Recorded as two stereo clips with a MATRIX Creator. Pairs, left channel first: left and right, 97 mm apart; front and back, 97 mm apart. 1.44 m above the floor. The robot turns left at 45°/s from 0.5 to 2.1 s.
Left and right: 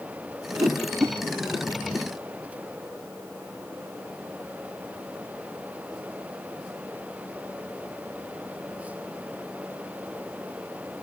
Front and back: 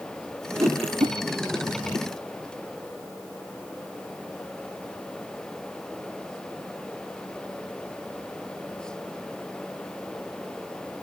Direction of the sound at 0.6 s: 130° right.